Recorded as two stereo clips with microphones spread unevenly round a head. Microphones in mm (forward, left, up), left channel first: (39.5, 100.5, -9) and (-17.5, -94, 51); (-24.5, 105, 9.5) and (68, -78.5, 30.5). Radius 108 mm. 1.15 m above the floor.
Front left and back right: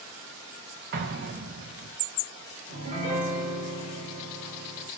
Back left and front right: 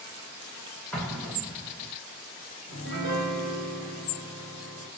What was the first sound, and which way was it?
An explosion, 155° right.